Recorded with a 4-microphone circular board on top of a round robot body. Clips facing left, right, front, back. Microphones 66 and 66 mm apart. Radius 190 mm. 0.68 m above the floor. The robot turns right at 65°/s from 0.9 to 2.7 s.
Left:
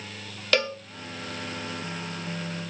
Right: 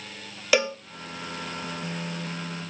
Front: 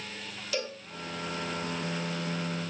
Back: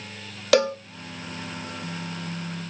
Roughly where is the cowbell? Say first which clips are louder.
Right 2 dB, back 15 dB; behind.